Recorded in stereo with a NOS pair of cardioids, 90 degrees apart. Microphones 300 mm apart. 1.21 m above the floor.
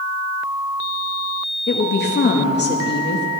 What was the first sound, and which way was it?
A woman speaking, 35° left.